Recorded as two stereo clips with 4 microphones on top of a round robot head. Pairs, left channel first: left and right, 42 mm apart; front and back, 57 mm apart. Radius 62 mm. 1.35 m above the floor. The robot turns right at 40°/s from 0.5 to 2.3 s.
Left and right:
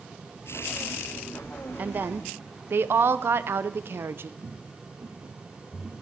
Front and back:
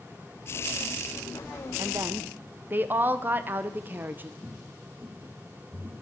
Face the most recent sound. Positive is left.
turn(degrees=-145)